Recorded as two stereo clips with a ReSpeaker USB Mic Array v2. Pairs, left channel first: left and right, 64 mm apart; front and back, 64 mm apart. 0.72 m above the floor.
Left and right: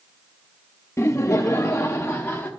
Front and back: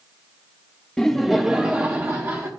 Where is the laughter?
75° left, 0.7 m; by 2.5 s 145° left, 0.9 m.